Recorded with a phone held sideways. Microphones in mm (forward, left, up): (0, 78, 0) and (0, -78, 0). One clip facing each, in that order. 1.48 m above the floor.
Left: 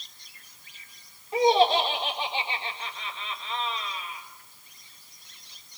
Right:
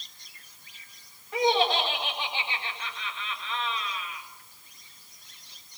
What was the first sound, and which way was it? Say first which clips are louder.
Laughter: left 4 dB; 25° left (ahead or behind).